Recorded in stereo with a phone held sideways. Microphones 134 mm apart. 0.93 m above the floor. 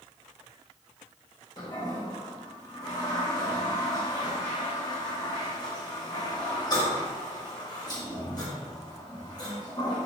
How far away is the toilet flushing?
About 0.9 m.